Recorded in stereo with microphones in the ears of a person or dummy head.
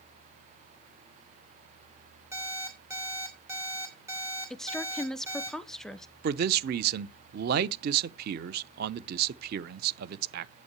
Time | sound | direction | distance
2.3 | an alarm clock | 15° right (ahead or behind) | 3 m
4.5 | a woman speaking | centre (ahead or behind) | 0.7 m
6.2 | a man speaking | 50° right (ahead or behind) | 0.6 m